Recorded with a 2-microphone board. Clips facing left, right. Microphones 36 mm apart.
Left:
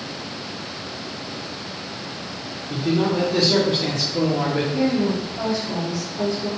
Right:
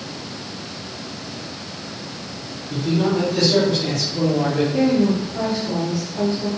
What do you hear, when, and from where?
2.7 s a man speaking: 35° left (ahead or behind), 0.7 m
4.7 s a woman speaking: 45° right (ahead or behind), 0.9 m